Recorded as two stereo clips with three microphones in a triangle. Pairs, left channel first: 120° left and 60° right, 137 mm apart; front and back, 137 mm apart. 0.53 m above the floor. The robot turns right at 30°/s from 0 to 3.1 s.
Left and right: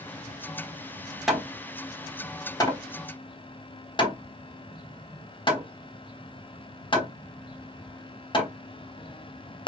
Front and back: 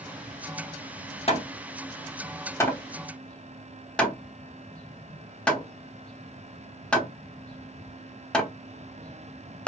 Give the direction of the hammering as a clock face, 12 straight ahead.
11 o'clock.